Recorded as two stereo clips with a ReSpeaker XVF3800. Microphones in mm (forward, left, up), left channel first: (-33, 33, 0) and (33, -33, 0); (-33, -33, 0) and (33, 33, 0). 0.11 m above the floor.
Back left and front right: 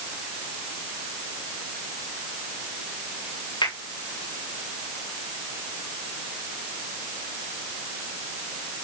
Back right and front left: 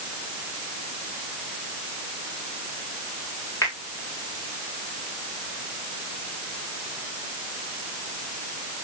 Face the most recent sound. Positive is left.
turn(degrees=165)